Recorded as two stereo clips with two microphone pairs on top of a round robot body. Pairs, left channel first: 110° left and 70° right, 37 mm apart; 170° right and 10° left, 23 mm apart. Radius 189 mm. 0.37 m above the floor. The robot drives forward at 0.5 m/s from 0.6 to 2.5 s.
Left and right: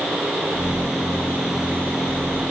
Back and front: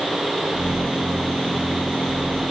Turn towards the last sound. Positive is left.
No sound to turn to.